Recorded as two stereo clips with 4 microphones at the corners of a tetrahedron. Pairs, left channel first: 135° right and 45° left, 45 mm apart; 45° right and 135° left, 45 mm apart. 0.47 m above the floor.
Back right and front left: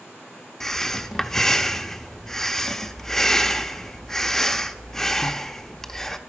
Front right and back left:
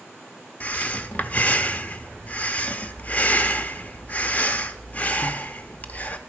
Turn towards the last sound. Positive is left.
turn(degrees=-60)